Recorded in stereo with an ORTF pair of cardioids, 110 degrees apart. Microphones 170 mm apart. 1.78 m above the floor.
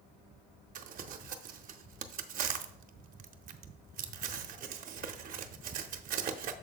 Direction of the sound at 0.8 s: 55° right.